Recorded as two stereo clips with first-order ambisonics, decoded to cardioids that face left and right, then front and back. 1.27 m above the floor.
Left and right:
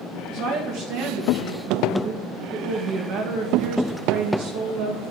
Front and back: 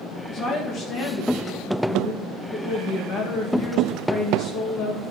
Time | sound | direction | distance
0.3 | a woman speaking | 55° right | 1.5 m